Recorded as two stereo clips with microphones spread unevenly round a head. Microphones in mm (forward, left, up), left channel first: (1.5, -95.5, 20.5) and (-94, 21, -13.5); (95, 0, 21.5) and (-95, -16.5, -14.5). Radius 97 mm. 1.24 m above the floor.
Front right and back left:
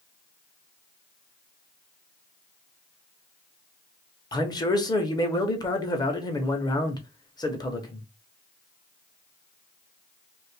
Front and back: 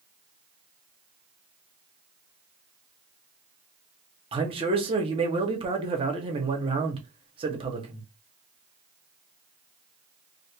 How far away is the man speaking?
About 0.9 m.